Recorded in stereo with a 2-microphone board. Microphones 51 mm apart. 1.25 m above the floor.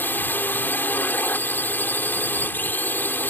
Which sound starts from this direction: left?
A drone, at 0.0 s.